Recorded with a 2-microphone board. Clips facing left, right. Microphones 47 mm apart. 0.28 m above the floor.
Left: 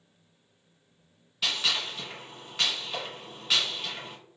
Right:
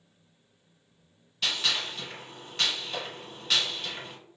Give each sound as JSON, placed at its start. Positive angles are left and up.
{"t": 1.4, "sound": "a gunshot", "side_deg": 5, "distance_m": 1.6}